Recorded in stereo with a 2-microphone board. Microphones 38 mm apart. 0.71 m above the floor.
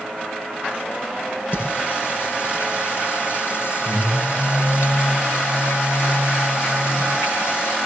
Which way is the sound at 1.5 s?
65° left (ahead or behind).